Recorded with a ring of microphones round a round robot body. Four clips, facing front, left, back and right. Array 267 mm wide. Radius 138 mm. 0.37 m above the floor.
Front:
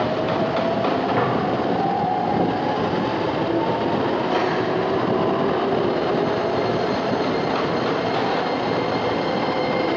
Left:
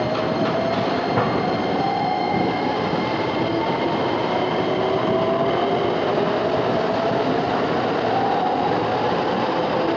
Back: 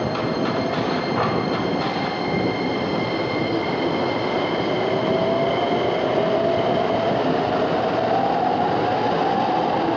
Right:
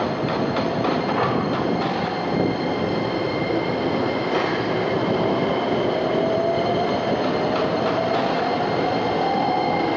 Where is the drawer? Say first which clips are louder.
Left 3 dB, back 1 dB; 70° left, 2 m.